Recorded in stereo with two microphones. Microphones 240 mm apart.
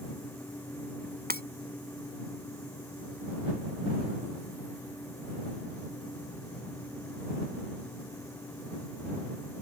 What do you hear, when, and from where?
1.3 s breaking glass: 40° right (ahead or behind)